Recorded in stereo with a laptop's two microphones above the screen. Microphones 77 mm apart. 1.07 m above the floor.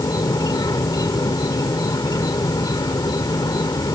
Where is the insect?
60° left (ahead or behind).